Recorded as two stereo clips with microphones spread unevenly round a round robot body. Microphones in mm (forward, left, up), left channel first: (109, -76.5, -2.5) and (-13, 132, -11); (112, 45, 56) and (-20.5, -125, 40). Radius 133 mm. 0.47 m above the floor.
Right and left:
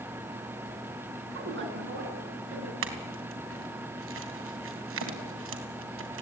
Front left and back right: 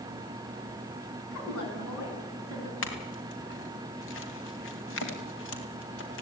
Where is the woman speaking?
80° left, 6.5 m.